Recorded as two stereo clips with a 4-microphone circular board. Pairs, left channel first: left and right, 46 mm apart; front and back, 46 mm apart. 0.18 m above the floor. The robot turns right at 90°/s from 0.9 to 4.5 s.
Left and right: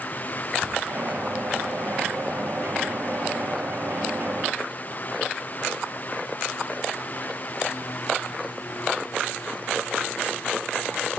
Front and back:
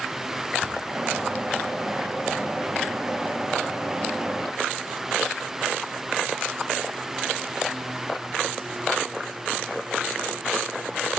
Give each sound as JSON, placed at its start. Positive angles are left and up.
{"t": 0.6, "sound": "a cupboard door", "azimuth_deg": -75, "distance_m": 2.0}